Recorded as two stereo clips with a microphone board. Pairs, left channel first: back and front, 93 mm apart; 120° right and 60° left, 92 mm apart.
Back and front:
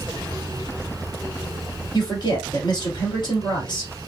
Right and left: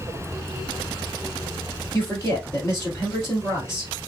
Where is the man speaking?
175° right, 1.8 m.